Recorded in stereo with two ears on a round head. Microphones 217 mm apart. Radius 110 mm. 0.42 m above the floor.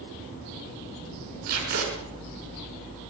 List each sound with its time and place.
1.5 s tape being pulled: 35° right (ahead or behind), 6 m